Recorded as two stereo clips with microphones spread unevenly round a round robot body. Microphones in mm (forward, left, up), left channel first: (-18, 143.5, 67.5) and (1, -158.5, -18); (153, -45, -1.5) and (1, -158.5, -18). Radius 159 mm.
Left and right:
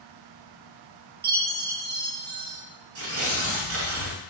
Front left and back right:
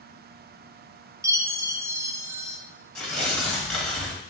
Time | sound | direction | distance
1.2 | a chime | 80° right | 0.7 m
3.0 | tearing paper | 50° right | 1.5 m